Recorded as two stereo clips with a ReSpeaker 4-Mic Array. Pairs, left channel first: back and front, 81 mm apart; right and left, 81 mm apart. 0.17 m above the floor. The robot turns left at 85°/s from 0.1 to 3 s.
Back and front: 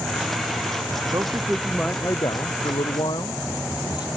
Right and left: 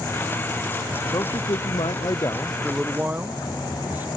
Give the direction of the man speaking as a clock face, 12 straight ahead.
1 o'clock.